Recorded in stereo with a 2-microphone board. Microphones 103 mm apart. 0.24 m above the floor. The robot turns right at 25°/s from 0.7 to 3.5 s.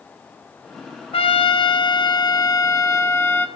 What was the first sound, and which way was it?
A trumpet, 100° left.